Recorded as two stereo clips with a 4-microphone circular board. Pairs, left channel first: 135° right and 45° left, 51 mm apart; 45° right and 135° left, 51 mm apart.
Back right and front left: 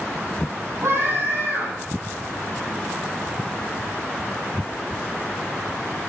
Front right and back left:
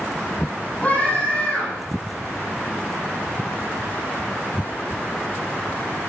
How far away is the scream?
About 7.5 m.